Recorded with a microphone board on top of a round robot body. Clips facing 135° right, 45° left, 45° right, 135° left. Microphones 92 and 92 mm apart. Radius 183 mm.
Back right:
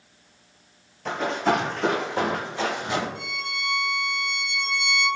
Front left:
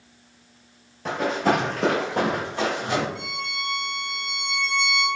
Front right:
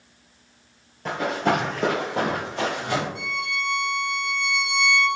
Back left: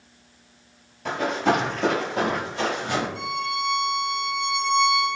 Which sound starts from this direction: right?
A violin, at 3.1 s.